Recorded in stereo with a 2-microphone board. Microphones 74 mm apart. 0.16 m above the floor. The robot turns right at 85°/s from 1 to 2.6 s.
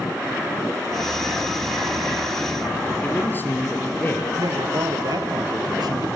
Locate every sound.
3.0 s a man speaking: 25° left (ahead or behind), 4 m
4.4 s a man speaking: 65° right (ahead or behind), 3.5 m